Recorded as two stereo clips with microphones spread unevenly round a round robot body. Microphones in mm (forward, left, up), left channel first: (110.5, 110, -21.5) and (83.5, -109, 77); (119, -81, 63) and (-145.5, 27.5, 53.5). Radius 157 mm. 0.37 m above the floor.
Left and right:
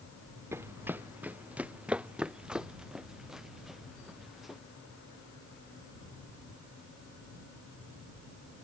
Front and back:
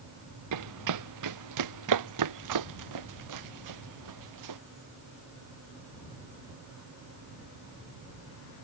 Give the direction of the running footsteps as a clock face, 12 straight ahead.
6 o'clock.